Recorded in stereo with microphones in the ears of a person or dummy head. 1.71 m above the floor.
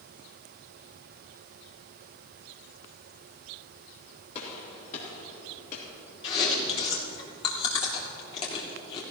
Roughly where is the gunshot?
Left.